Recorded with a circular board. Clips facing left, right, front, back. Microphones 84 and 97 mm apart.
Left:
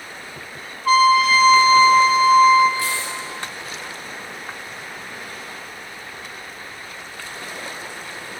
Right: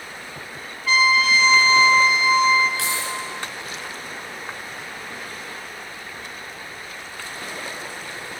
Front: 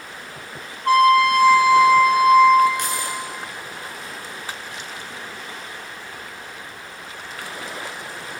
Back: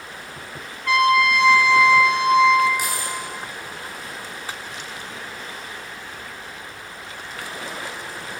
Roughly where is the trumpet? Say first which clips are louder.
Left 5 dB, front 4 dB; ahead left.